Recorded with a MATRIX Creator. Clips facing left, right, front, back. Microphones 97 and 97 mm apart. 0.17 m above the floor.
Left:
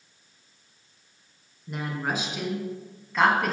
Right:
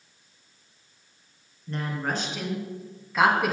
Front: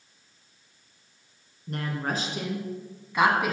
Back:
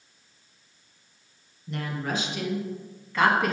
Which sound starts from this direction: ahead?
A woman speaking, at 1.7 s.